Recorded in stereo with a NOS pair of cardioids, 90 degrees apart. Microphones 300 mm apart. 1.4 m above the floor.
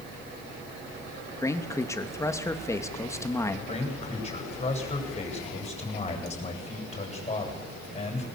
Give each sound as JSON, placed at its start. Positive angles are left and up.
{"t": 1.4, "sound": "a man speaking", "azimuth_deg": 10, "distance_m": 2.5}
{"t": 3.7, "sound": "a man speaking", "azimuth_deg": 20, "distance_m": 9.0}